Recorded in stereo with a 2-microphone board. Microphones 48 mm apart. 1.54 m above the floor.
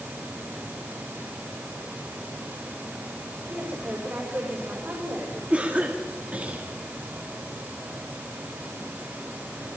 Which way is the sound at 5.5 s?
30° right (ahead or behind).